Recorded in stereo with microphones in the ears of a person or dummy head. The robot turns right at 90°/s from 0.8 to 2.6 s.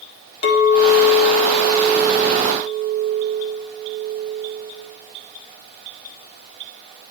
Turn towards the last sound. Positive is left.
turn(degrees=-115)